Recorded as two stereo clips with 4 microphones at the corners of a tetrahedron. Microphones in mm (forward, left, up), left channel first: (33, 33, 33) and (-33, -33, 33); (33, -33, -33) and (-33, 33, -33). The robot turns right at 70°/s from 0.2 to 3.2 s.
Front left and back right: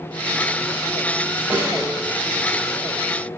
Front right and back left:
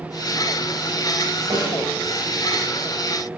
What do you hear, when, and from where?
1.5 s a snare drum: 160° left, 1.7 m; by 2.0 s 165° right, 1.7 m